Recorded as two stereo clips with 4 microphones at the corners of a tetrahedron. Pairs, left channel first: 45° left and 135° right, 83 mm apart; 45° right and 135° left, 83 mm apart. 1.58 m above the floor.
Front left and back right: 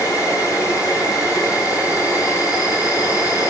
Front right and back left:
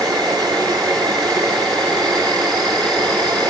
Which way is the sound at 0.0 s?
95° left.